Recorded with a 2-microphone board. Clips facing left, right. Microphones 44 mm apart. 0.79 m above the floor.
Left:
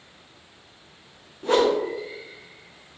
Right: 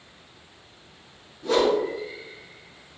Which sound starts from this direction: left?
A whoosh, at 1.4 s.